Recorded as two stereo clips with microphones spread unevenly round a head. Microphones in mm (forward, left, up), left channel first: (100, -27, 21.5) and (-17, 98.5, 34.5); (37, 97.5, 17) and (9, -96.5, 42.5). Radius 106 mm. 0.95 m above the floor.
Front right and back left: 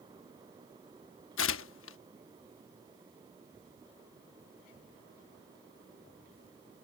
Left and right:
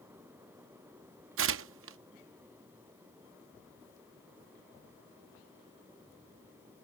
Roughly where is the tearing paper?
Right.